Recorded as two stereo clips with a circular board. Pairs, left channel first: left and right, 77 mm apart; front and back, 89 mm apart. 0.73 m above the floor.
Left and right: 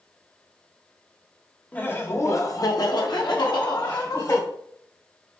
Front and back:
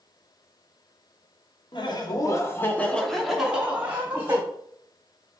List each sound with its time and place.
1.7 s laughter: 20° left, 1.1 m; by 4.4 s 115° left, 1.6 m